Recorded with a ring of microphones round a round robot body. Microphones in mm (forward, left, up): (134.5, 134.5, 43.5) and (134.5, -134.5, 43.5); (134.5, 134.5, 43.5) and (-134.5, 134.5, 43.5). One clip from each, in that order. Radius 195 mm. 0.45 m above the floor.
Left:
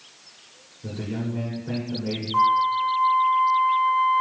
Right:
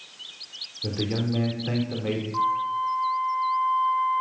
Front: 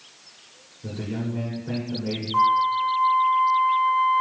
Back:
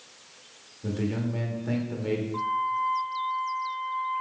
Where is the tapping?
No tapping in this recording.